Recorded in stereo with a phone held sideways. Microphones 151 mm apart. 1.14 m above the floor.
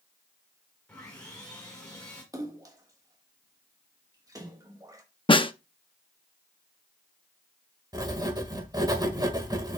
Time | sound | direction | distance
0.9 | sawing | 5° left (ahead or behind) | 4.5 m
2.3 | a splash | 20° right (ahead or behind) | 1.4 m
5.3 | a snare drum | 35° left (ahead or behind) | 0.6 m
7.9 | writing | 25° right (ahead or behind) | 1.6 m